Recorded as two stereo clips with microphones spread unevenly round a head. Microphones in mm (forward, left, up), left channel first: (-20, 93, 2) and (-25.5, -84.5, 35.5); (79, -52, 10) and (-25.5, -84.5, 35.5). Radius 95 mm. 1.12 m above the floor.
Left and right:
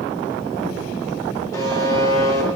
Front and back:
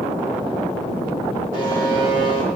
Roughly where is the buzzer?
Behind.